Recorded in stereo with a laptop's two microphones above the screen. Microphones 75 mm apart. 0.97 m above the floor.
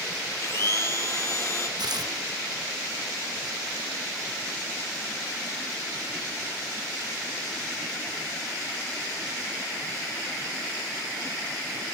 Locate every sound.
0.4 s a blender: 40° left (ahead or behind), 0.8 m
1.8 s tearing paper: 65° right (ahead or behind), 0.8 m